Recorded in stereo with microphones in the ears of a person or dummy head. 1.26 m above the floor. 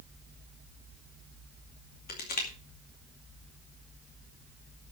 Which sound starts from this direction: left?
Crushing, at 2.1 s.